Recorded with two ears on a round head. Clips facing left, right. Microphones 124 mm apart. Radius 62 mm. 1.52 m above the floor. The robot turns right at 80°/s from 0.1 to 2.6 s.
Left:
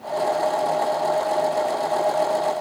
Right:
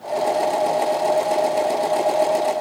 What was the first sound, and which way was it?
Only background noise.